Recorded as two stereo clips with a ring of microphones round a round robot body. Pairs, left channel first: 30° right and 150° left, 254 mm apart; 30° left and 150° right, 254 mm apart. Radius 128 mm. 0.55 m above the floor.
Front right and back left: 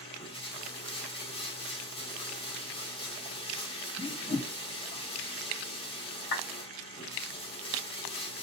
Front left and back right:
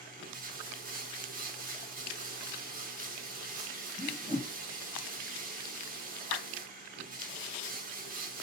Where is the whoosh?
80° right, 1.8 m.